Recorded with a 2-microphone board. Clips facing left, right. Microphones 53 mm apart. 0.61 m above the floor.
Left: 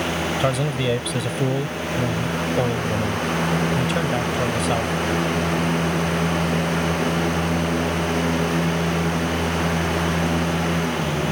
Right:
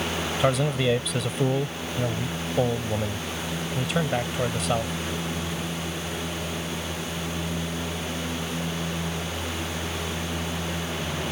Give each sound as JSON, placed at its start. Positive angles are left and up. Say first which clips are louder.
{"t": 0.4, "sound": "a man speaking", "louder": "right 2 dB", "side_deg": 0}